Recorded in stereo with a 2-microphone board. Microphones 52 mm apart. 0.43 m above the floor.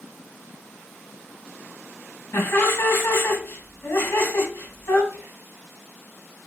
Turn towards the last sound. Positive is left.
turn(degrees=-60)  # may be behind; listen again after turning